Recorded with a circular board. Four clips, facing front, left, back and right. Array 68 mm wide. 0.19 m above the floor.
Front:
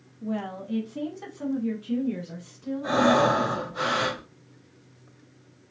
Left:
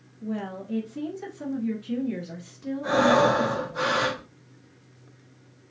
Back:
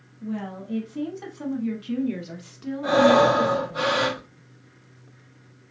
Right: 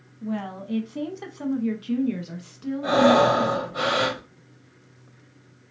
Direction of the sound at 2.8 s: 120° right.